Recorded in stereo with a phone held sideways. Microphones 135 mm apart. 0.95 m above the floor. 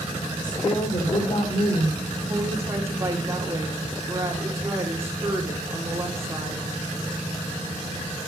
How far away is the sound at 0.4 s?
About 3.5 m.